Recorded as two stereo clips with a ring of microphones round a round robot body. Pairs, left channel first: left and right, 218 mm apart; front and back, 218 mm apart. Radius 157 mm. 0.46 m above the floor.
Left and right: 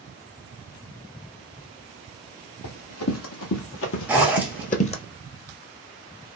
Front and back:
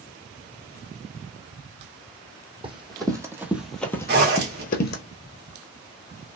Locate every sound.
2.6 s running footsteps: 115° left, 1.3 m; by 5.0 s 30° left, 0.8 m
4.1 s a zipper: 170° right, 0.9 m